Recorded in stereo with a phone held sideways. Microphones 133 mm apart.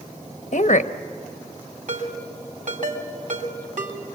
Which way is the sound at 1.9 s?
80° right.